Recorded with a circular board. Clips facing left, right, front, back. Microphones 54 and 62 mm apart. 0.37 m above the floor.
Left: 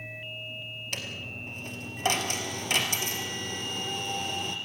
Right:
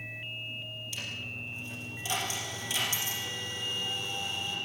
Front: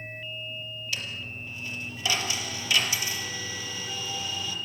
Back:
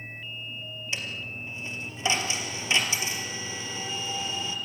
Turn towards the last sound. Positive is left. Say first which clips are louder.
# left 2 dB, back 2 dB
turn(degrees=115)